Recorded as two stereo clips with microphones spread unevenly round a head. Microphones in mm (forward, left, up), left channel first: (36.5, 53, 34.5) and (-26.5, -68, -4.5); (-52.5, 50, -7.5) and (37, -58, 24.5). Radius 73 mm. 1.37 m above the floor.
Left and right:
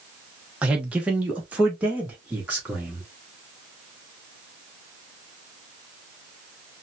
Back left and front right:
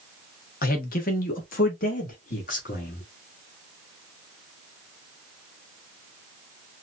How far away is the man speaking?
About 1.2 m.